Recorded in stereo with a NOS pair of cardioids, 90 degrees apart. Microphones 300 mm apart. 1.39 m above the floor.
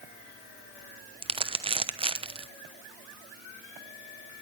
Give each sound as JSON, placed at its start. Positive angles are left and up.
{"t": 1.2, "sound": "crumpling", "azimuth_deg": -20, "distance_m": 1.0}